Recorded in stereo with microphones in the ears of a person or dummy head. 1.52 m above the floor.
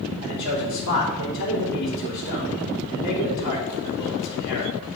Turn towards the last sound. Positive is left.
turn(degrees=70)  # may be behind; listen again after turning